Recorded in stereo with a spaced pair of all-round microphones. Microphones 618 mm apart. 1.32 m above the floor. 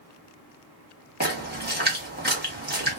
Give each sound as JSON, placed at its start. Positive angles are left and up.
{"t": 1.2, "sound": "a splash", "side_deg": -15, "distance_m": 1.2}